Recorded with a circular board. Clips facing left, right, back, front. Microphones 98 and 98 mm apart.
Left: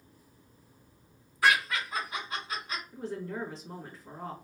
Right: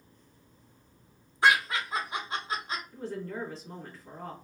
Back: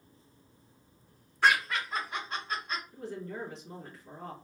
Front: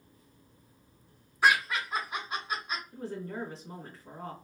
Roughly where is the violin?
I don't hear a violin.